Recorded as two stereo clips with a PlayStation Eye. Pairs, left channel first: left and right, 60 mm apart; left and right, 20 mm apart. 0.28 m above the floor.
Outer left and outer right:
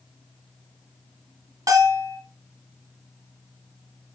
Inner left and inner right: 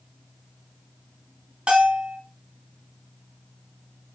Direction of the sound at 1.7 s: 65° right (ahead or behind).